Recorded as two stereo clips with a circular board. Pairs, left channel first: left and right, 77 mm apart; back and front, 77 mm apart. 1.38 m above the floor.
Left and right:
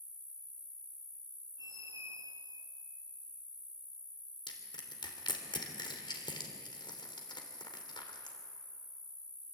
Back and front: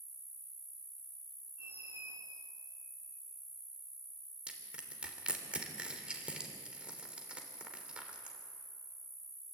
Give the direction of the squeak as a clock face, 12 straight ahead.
2 o'clock.